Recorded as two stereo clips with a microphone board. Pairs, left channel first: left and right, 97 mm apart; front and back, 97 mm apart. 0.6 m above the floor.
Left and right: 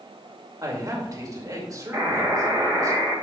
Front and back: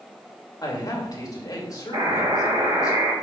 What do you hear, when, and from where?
0.6 s a man speaking: 40° right, 2.5 m
1.9 s a buzzer: 145° right, 3 m